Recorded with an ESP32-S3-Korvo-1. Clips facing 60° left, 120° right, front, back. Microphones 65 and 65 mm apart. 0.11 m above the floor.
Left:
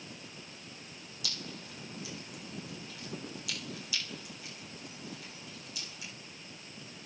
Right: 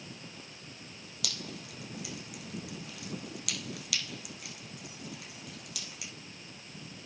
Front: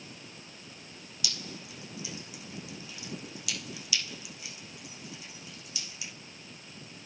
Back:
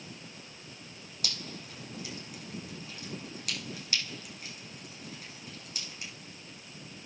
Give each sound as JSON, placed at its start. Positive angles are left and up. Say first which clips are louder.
{"t": 1.2, "sound": "dripping", "louder": "right 2 dB, even", "azimuth_deg": -135, "distance_m": 5.5}